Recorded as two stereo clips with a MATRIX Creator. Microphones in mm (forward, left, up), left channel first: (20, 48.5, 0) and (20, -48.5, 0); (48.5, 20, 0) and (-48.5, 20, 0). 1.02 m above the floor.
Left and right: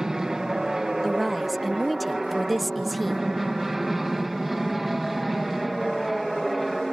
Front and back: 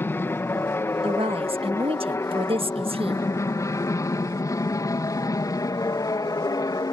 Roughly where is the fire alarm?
I don't hear a fire alarm.